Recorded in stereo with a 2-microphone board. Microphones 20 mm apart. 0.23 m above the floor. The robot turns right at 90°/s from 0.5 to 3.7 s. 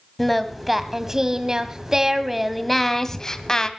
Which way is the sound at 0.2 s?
175° left.